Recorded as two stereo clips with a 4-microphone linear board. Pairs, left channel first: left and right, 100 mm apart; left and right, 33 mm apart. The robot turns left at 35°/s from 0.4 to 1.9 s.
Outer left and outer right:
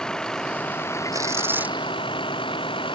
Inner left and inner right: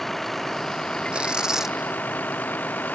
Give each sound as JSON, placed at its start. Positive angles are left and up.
{"t": 0.0, "sound": "a vehicle", "azimuth_deg": 175}
{"t": 1.1, "sound": "tearing paper", "side_deg": -35}